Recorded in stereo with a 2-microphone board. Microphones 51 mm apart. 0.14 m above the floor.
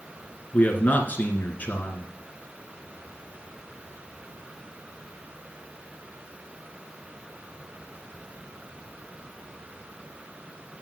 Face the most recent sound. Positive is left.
turn(degrees=35)  # may be behind; listen again after turning